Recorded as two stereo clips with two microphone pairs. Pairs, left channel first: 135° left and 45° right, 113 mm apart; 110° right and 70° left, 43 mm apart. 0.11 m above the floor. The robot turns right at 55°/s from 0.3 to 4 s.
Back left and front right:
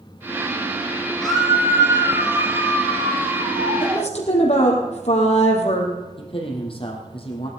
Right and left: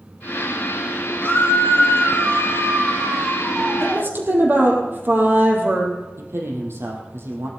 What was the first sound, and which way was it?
A scream, 140° right.